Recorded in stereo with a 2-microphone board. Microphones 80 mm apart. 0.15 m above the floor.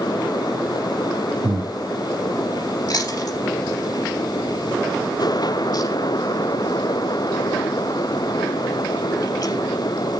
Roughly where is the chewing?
Left.